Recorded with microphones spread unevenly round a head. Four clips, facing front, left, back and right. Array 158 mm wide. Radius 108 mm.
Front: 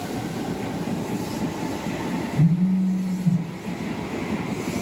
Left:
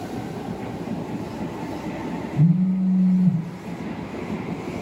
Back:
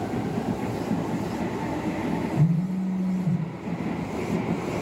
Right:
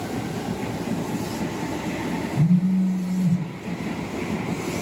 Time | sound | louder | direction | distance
2.4 | a phone buzzing | left 1 dB, front 4 dB | 5° left | 1.7 m